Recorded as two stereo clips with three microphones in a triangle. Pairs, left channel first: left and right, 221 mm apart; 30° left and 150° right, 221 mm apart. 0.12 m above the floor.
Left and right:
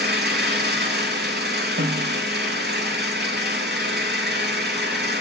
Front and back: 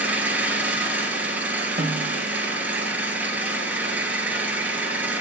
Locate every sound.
0.0 s an engine running: 70° right, 1.8 m
1.8 s a snare drum: 110° right, 0.9 m